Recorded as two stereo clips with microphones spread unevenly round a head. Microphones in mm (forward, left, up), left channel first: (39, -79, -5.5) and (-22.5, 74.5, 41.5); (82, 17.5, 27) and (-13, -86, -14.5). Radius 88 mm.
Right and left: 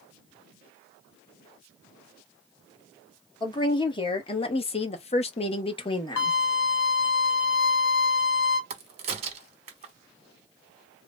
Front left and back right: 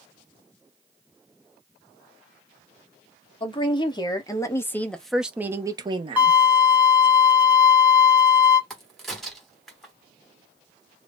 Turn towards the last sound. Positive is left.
turn(degrees=120)